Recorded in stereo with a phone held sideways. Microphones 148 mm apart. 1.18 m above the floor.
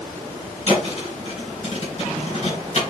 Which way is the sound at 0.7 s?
45° left (ahead or behind).